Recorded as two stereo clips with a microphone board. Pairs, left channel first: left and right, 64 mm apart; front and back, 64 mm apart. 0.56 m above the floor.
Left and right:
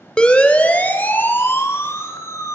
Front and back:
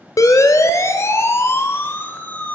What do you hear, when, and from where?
0.2 s a siren: 15° left, 2.5 m; by 2.5 s 60° left, 2.5 m